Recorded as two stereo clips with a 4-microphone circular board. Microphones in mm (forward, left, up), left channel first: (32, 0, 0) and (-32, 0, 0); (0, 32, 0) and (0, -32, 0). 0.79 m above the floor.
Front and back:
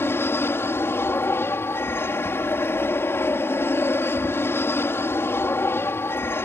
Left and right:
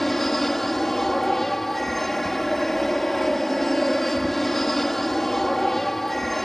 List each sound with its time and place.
0.0 s an aircraft: 5° left